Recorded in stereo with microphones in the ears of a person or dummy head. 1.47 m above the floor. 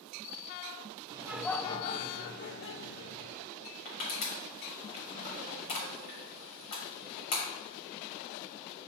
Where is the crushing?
40° left (ahead or behind), 2.5 m.